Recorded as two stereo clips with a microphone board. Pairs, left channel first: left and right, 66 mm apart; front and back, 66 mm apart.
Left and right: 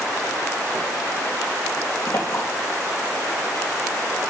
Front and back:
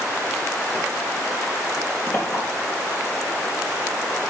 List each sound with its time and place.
2.1 s a clink: 60° left, 4 m